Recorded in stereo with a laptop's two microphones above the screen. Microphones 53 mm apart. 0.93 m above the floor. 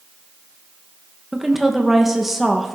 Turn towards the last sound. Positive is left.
turn(degrees=-5)  # may be behind; listen again after turning